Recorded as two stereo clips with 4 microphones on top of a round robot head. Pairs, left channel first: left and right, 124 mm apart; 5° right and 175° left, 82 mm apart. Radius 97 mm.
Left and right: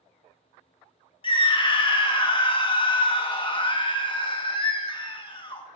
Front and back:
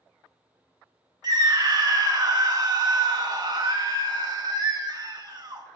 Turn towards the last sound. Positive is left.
turn(degrees=140)